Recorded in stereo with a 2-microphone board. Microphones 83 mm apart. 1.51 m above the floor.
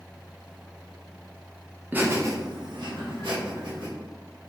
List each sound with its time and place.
1.9 s laughter: 20° right (ahead or behind), 0.8 m; by 3.9 s 90° right, 1.5 m